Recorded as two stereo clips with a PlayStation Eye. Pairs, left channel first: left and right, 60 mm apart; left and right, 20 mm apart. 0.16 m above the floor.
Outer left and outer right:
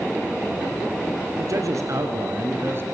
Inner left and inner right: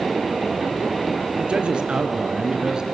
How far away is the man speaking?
About 3 m.